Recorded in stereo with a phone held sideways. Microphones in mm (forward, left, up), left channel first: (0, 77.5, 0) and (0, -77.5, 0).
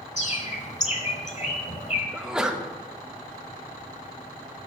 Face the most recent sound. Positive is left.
turn(degrees=-5)  # may be behind; listen again after turning